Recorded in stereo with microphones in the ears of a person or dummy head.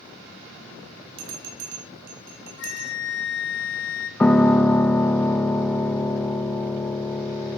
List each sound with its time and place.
1.2 s a bell: 75° right (ahead or behind), 3.5 m
2.6 s a flute: 65° left (ahead or behind), 1.7 m
4.2 s a piano: 5° left (ahead or behind), 0.6 m